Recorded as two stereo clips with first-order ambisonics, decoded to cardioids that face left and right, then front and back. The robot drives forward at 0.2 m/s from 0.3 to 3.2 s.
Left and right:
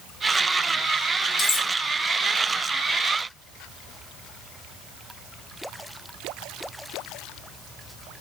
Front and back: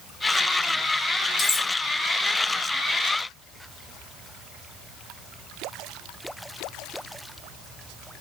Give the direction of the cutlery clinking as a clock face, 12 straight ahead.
10 o'clock.